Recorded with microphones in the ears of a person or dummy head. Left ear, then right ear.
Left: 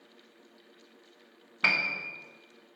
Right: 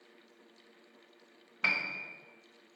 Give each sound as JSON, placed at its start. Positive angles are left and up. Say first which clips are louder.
{"t": 1.6, "sound": "a piano", "louder": "left 5 dB", "side_deg": 0, "distance_m": 0.5}